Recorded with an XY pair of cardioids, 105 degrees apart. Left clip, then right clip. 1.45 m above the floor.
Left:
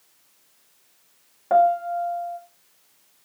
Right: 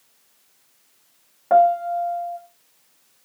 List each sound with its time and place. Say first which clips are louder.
1.5 s a piano: right 2 dB; 15° right, 0.7 m